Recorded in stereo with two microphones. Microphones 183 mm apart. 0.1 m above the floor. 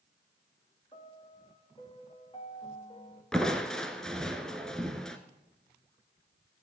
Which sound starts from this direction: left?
A piano, at 0.9 s.